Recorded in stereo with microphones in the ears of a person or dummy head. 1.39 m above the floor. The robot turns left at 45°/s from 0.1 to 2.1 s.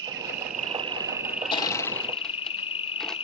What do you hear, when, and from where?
0.0 s an insect: 120° right, 0.7 m; by 3.2 s 150° left, 0.7 m
1.5 s crushing: 25° left (ahead or behind), 0.9 m; by 3.1 s 5° left (ahead or behind), 0.9 m